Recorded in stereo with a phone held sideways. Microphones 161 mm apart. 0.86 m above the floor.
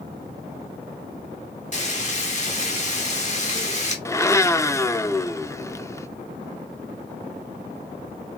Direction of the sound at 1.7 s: 45° left (ahead or behind).